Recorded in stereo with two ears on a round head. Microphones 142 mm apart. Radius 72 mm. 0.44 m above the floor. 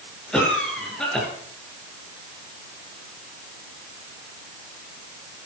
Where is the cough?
5° left (ahead or behind), 7 m.